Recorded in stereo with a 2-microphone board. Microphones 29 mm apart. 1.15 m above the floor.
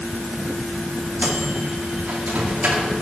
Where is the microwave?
70° right (ahead or behind), 2.5 m.